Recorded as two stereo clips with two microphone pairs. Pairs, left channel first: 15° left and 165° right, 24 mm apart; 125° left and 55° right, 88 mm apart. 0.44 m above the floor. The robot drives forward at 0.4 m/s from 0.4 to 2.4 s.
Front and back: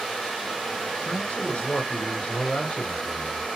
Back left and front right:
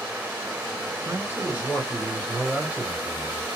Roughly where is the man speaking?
Ahead.